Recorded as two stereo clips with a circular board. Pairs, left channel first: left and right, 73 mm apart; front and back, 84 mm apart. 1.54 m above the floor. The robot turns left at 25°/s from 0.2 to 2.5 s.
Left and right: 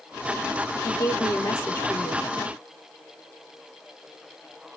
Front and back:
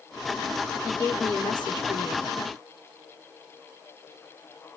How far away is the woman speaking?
About 4 m.